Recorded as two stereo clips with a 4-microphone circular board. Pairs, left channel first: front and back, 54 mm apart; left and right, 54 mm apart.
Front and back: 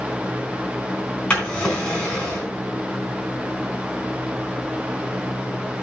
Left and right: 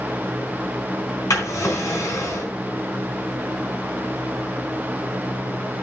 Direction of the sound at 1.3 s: 75° left.